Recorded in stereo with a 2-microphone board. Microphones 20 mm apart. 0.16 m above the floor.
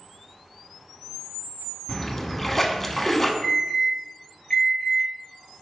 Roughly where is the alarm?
Left.